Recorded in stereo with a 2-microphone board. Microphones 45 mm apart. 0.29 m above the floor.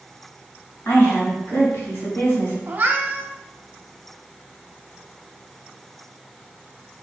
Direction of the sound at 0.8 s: 55° left (ahead or behind).